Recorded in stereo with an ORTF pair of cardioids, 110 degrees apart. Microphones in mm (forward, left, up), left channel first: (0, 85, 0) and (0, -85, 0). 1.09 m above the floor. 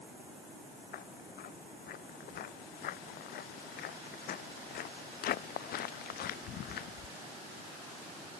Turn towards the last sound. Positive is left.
turn(degrees=65)